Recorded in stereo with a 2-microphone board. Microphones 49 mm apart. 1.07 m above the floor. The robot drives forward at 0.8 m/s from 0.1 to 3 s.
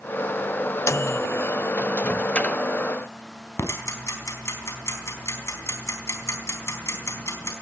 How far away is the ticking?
About 4 m.